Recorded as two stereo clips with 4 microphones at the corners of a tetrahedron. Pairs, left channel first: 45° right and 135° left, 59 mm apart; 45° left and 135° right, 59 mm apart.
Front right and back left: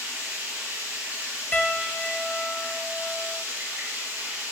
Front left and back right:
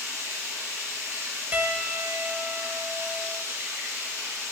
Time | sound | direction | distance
0.0 | running water | 165° right | 3 m
1.5 | a piano | 95° right | 0.7 m